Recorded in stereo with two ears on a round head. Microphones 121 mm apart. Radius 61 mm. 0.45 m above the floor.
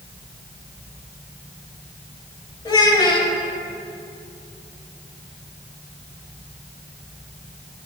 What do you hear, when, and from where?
2.6 s a child speaking: 35° left (ahead or behind), 1.4 m